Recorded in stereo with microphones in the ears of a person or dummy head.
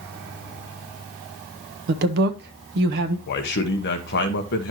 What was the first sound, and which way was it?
A woman speaking, 60° right (ahead or behind).